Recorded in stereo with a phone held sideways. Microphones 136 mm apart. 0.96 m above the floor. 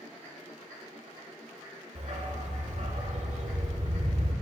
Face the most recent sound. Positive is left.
turn(degrees=-55)  # may be behind; listen again after turning